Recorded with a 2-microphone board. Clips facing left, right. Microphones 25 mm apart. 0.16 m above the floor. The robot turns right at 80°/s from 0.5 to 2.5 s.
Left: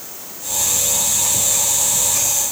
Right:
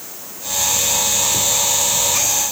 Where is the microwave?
I don't hear a microwave.